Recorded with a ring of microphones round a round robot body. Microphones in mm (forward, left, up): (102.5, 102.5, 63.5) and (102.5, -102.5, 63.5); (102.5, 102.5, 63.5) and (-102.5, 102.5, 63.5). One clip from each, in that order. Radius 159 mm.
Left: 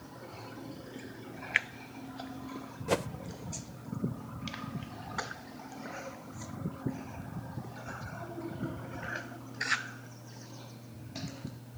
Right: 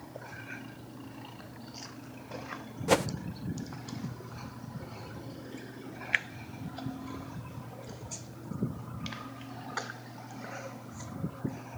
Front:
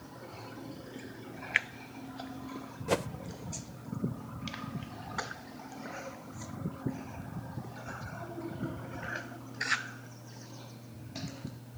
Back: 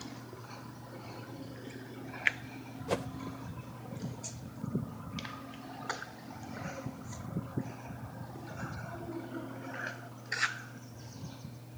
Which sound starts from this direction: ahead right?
A whoosh, at 2.9 s.